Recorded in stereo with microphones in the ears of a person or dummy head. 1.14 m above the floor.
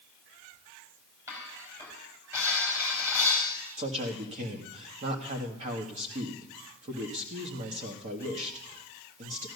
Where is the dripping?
No dripping in this recording.